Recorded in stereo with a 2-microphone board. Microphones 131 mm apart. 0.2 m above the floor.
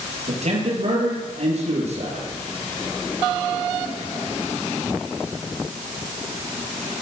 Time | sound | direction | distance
0.3 | a man speaking | 60° right (ahead or behind) | 6 m